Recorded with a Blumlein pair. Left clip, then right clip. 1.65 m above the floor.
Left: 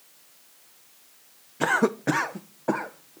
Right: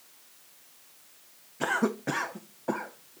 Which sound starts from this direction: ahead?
A cough, at 1.6 s.